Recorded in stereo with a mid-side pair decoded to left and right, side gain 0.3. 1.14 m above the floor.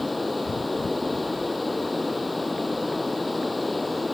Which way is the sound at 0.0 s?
20° left.